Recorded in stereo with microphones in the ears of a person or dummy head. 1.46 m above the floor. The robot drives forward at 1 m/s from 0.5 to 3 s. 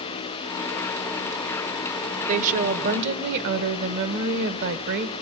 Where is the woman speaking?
40° right (ahead or behind), 1.8 m; by 5.1 s 60° right (ahead or behind), 1.3 m.